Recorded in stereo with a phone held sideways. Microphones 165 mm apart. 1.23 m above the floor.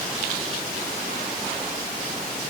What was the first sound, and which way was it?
Only background noise.